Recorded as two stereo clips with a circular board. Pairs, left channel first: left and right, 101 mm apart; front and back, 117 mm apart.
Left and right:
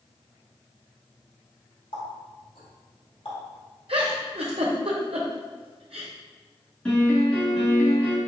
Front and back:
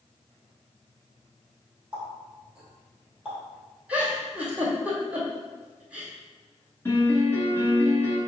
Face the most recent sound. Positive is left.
turn(degrees=25)